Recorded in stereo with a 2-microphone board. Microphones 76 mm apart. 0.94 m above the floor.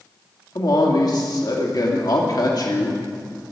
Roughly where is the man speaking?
Left.